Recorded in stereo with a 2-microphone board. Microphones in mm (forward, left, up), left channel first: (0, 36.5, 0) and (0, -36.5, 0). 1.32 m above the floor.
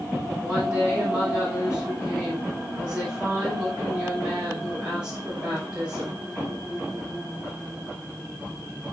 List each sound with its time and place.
0.4 s a woman speaking: 10° right (ahead or behind), 6 m